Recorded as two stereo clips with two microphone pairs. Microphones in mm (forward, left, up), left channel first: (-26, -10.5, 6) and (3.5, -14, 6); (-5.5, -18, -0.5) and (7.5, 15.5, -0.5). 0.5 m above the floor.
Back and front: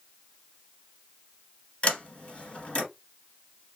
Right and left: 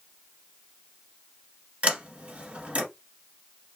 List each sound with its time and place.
1.8 s a sliding door: 125° left, 1.4 m